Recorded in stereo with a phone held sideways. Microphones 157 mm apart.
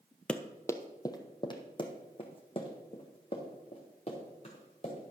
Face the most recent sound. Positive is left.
turn(degrees=40)  # may be behind; listen again after turning